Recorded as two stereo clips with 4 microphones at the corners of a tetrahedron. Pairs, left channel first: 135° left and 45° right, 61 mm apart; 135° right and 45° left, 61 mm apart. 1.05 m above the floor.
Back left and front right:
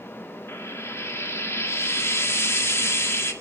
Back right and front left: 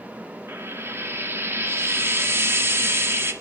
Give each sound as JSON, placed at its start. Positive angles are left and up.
{"t": 0.5, "sound": "frying", "azimuth_deg": 95, "distance_m": 1.9}